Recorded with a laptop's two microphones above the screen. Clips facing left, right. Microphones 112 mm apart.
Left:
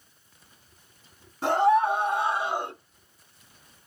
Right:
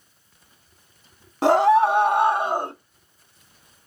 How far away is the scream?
About 1.7 m.